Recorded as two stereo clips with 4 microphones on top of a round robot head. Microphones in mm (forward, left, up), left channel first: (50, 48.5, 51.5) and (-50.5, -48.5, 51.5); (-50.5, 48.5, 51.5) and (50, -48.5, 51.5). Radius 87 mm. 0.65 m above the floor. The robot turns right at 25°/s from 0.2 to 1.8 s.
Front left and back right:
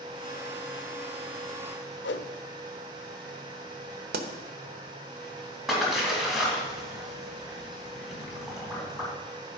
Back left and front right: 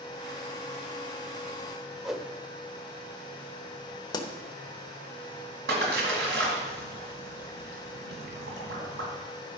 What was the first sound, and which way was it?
A whoosh, 45° left.